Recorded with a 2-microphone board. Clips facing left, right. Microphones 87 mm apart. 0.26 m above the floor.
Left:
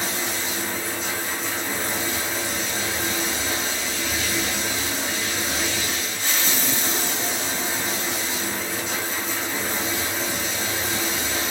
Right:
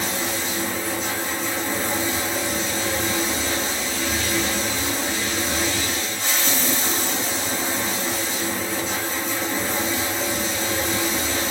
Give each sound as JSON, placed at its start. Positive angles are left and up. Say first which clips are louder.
{"t": 0.0, "sound": "running water", "louder": "right 2 dB", "side_deg": -35, "distance_m": 2.0}